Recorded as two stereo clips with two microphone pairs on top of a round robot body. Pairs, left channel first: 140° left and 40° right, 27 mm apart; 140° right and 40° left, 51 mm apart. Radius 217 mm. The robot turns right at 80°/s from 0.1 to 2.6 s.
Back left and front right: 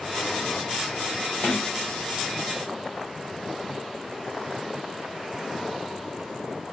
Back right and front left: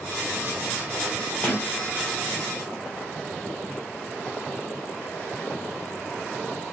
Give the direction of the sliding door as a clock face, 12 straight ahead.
6 o'clock.